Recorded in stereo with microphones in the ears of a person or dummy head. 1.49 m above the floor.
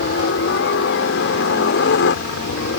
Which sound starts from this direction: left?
A helicopter, at 0.0 s.